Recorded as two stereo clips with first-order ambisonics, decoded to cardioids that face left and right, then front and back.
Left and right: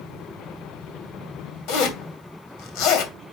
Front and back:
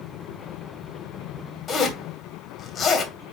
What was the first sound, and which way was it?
A zipper, 65° left.